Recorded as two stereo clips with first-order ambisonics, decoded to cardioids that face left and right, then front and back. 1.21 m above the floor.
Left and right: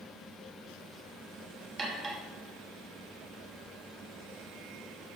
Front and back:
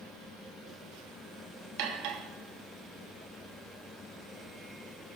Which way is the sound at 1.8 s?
165° right.